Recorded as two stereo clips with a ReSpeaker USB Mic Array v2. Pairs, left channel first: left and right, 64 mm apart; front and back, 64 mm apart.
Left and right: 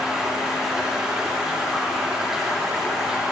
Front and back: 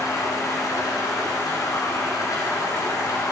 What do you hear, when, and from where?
0.0 s running water: 10° right, 3 m